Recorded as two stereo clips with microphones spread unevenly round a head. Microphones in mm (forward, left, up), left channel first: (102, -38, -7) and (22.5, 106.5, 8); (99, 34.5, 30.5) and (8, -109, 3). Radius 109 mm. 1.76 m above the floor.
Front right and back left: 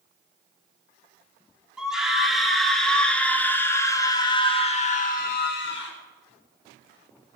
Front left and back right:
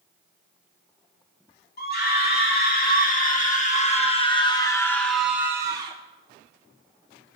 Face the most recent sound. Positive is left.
turn(degrees=-60)